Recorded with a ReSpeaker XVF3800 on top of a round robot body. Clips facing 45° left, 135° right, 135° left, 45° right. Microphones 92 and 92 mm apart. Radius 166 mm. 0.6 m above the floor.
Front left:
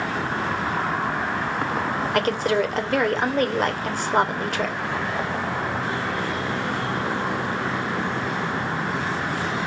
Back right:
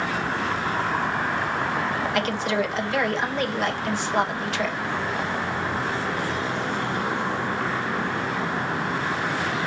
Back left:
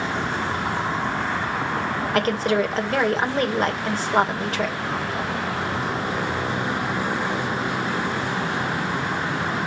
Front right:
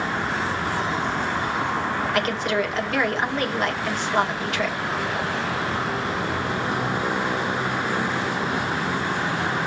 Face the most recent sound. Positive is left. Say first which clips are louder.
# front left 5 dB, back left 5 dB
turn(degrees=85)